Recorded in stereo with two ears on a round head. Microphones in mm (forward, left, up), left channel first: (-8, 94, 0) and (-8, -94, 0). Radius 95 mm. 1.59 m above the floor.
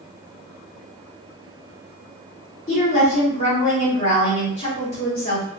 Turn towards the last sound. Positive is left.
turn(degrees=35)  # may be behind; listen again after turning